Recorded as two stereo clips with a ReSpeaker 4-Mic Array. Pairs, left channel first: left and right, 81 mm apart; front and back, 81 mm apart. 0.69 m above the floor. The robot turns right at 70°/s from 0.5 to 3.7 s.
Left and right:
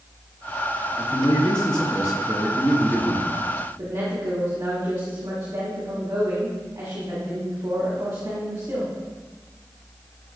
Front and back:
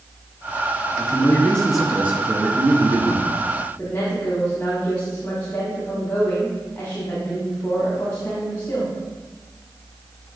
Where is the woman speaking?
65° right, 2.0 m.